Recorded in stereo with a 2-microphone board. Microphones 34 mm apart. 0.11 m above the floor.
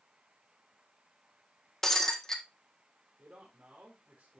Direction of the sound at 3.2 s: 50° right (ahead or behind).